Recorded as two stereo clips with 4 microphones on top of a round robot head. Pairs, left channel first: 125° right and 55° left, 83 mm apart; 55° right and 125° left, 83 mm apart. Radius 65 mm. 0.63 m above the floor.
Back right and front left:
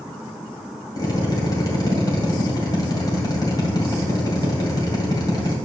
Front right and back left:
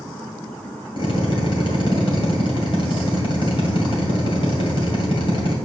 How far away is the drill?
About 2 m.